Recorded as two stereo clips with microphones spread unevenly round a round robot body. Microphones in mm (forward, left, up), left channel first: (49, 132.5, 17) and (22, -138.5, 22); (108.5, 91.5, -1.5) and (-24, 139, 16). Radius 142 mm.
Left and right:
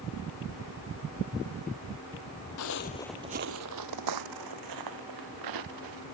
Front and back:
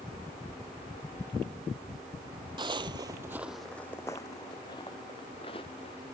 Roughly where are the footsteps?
Behind left.